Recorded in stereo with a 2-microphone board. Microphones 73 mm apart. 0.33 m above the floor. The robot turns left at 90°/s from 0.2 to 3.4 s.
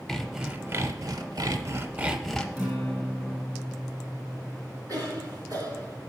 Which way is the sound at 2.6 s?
155° right.